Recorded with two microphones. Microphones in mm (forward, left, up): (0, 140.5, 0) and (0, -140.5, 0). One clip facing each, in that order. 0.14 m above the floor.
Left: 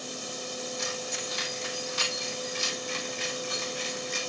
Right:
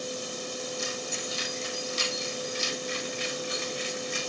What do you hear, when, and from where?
0.8 s keys jangling: 70° left (ahead or behind), 4 m; by 4.3 s 50° left (ahead or behind), 5.5 m